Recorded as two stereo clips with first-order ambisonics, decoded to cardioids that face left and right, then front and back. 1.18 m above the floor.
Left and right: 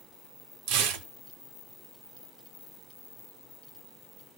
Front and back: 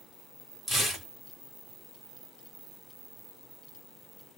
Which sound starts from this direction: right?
Tearing paper, at 0.7 s.